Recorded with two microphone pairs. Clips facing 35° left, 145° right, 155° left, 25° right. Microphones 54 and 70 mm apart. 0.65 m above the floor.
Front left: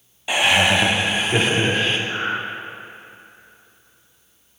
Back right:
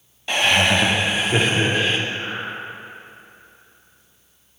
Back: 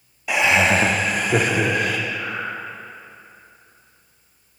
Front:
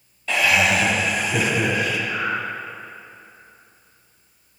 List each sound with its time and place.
0.3 s laughter: 110° left, 0.7 m; by 2.0 s 125° left, 1.6 m
2.1 s breathing: 20° left, 1.9 m